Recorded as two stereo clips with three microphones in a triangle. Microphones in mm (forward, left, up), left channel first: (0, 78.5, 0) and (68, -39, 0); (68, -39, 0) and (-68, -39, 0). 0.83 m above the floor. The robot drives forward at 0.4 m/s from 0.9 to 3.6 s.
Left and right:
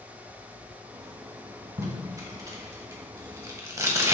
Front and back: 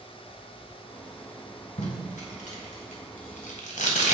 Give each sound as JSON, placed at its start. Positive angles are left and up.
{"t": 1.8, "sound": "tape being pulled", "azimuth_deg": 5, "distance_m": 2.5}